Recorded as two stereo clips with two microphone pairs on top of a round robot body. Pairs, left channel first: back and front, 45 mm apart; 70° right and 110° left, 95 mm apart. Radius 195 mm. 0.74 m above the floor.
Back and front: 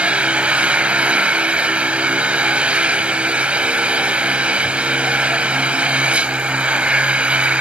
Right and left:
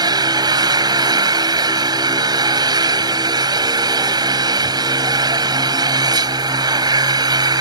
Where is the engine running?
65° left.